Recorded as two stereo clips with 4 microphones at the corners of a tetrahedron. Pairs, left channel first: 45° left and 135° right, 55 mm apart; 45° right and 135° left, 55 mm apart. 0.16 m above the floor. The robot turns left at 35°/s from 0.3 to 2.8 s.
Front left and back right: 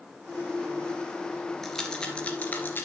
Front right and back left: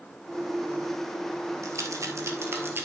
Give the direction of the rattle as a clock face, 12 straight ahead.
8 o'clock.